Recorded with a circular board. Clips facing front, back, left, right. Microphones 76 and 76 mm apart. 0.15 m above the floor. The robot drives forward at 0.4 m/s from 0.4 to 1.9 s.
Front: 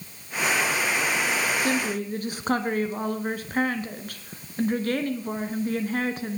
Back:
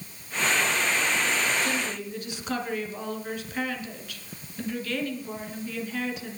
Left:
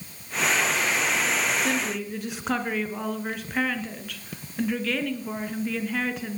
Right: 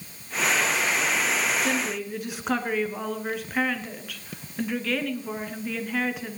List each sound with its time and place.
1.6 s a woman speaking: straight ahead, 2.0 m